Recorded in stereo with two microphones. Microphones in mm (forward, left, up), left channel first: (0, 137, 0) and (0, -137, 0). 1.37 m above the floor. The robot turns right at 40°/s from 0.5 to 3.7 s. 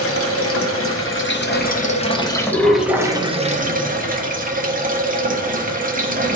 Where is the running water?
90° left, 0.8 m; by 6.3 s 140° right, 0.8 m.